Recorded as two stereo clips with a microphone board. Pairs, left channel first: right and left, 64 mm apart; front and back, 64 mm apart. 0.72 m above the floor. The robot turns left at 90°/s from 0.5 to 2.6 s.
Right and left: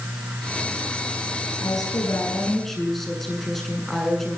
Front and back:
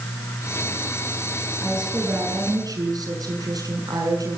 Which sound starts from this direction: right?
A woman speaking, at 1.6 s.